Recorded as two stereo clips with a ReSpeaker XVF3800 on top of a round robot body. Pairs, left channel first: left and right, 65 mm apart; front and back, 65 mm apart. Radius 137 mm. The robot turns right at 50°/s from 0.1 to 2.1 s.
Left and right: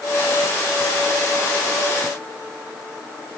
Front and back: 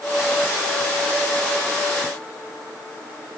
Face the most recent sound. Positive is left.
No sound to turn to.